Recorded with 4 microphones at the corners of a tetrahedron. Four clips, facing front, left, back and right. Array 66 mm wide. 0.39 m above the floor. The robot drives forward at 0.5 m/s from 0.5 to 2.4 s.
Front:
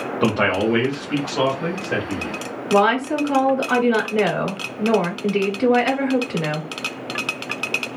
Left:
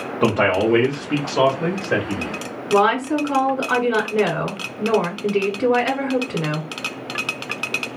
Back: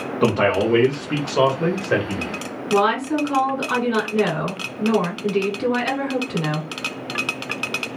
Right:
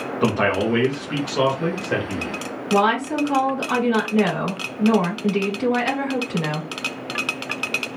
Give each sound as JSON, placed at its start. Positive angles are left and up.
{"t": 0.2, "sound": "a man speaking", "azimuth_deg": 95, "distance_m": 0.8}
{"t": 2.7, "sound": "a woman speaking", "azimuth_deg": 70, "distance_m": 1.1}